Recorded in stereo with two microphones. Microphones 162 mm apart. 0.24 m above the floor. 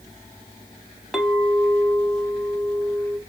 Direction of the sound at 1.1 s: Centre (ahead or behind).